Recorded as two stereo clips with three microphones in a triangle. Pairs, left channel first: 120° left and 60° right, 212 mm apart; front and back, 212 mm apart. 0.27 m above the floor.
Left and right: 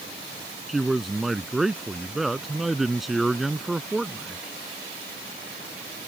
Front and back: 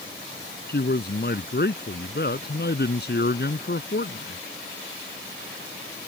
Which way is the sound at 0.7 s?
30° left.